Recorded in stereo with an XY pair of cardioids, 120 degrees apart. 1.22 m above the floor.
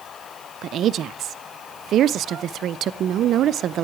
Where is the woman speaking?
55° right, 0.5 m.